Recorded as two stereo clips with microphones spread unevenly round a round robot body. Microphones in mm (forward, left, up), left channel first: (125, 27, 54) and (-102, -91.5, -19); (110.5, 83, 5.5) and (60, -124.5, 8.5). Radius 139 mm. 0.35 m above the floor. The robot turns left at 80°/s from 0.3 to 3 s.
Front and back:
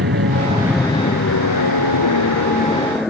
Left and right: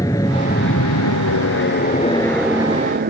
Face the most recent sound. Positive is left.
turn(degrees=-60)